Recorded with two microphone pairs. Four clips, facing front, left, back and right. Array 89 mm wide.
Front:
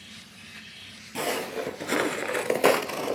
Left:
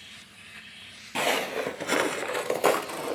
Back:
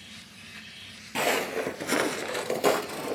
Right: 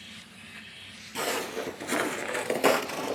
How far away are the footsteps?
About 1.1 m.